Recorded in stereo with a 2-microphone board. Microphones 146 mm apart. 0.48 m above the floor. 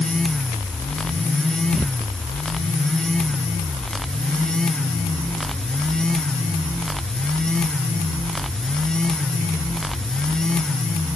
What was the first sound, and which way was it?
Only background noise.